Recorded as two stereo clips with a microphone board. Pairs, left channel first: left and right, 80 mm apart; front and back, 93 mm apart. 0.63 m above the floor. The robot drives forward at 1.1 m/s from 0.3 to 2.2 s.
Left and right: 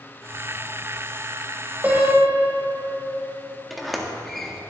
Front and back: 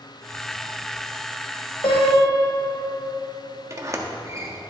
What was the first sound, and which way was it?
A piano, 20° right.